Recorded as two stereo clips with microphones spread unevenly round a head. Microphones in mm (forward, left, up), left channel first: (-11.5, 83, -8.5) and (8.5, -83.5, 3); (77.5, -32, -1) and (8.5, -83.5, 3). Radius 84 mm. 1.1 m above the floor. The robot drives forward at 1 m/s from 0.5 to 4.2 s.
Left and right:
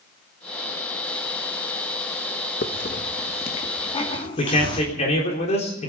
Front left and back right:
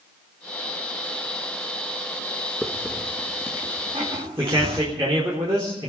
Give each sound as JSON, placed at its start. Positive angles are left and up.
{"t": 2.6, "sound": "a hiss", "azimuth_deg": 130, "distance_m": 1.3}
{"t": 4.4, "sound": "a man speaking", "azimuth_deg": 150, "distance_m": 3.5}